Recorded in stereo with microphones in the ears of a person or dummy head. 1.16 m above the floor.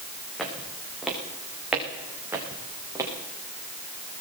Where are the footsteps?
5° left (ahead or behind), 6.5 m; by 3.1 s 15° right (ahead or behind), 6.5 m.